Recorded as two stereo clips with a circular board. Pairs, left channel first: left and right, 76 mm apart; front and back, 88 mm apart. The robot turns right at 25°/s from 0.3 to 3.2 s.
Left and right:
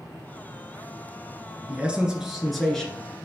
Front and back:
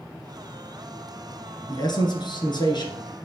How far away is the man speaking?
About 1.8 m.